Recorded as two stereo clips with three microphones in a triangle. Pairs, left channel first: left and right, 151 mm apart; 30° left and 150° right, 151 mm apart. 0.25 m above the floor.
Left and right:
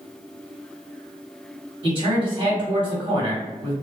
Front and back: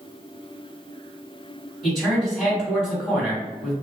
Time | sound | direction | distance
1.8 | a man speaking | 70° right | 1.8 m